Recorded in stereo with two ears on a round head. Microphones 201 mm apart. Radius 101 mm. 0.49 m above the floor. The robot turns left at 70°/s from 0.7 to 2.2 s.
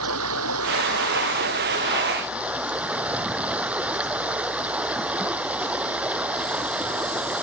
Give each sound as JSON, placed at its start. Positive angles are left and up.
{"t": 0.0, "sound": "running water", "azimuth_deg": -70}